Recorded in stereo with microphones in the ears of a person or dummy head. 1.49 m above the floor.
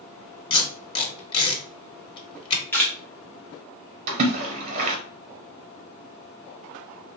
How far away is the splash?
About 0.8 m.